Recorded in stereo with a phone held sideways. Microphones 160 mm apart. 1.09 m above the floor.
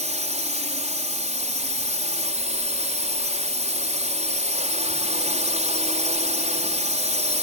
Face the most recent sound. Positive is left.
turn(degrees=-45)  # may be behind; listen again after turning